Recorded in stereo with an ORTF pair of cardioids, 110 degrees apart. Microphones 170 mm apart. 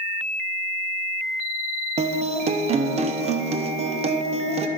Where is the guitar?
40° right, 0.7 m.